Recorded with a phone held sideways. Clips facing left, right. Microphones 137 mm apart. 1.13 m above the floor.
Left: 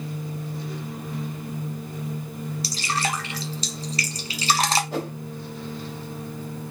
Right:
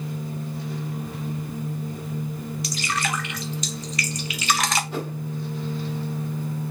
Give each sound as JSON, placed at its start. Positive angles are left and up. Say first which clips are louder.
{"t": 2.6, "sound": "dripping", "louder": "left 1 dB", "side_deg": 30, "distance_m": 0.7}
{"t": 4.9, "sound": "a whoosh", "louder": "left 1 dB", "side_deg": 45, "distance_m": 2.0}